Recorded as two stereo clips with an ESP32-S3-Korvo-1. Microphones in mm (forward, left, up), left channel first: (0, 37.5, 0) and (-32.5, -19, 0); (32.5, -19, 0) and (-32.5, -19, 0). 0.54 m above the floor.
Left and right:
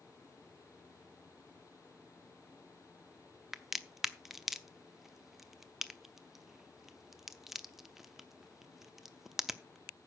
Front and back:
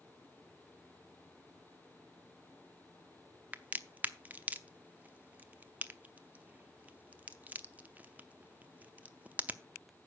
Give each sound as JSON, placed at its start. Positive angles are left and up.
{"t": 3.5, "sound": "a crack", "azimuth_deg": 160, "distance_m": 0.7}